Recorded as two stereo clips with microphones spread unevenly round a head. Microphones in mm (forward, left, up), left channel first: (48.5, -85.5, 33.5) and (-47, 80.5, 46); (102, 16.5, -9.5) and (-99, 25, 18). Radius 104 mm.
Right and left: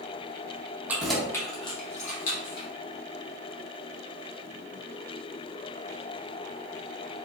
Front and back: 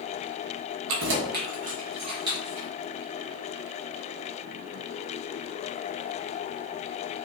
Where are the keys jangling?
160° right, 0.8 m; by 2.7 s 105° right, 1.4 m.